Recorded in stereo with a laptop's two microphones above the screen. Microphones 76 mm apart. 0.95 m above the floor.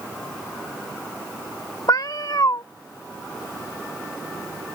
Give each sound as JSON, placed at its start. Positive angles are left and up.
{"t": 1.9, "sound": "a cat meowing", "side_deg": 55}